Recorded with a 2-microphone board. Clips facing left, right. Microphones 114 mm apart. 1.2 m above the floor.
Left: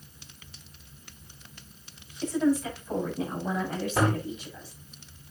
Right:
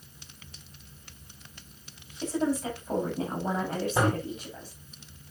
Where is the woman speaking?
30° right (ahead or behind), 6.5 m; by 4.7 s 45° right (ahead or behind), 6.5 m.